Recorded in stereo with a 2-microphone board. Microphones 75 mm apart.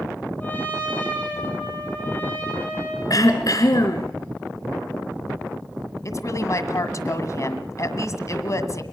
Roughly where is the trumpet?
Left.